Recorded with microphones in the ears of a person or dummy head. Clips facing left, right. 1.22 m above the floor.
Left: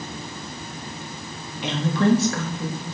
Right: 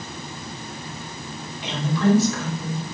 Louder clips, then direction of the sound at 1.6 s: Left 1 dB; 55° left (ahead or behind).